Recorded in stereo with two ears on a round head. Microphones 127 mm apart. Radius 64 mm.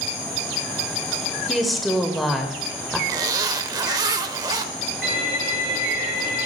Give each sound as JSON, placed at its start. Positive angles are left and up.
{"t": 1.5, "sound": "a woman speaking", "side_deg": 0, "distance_m": 1.5}
{"t": 3.1, "sound": "a zipper", "side_deg": -25, "distance_m": 0.7}
{"t": 5.0, "sound": "a violin", "side_deg": -80, "distance_m": 6.5}